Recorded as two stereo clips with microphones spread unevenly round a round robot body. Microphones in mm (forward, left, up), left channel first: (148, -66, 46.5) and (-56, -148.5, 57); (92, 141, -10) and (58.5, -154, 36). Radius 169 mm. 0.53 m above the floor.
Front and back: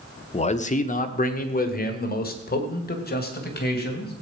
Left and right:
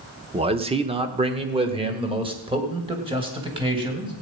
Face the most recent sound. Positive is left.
turn(degrees=-20)